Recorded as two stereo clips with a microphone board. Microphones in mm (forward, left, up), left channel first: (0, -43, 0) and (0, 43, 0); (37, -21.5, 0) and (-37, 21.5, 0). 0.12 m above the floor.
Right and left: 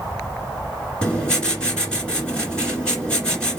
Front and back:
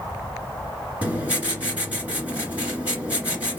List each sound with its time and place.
1.0 s writing: 160° right, 1.9 m